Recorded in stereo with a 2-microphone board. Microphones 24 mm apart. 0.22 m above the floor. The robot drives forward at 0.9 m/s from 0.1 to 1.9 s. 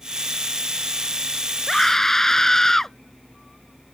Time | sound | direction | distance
1.7 | a scream | 20° left (ahead or behind) | ?